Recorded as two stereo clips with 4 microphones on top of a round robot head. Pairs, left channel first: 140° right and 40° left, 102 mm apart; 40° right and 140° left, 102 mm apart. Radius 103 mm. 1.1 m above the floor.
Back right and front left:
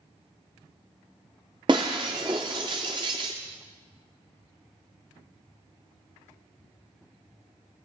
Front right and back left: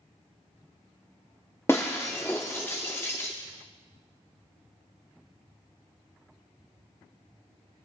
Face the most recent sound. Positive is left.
turn(degrees=20)